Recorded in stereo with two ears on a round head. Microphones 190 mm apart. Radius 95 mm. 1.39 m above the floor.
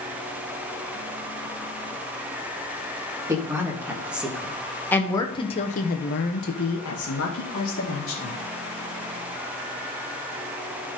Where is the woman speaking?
15° right (ahead or behind), 2.5 m; by 8.3 s 65° left (ahead or behind), 2.5 m.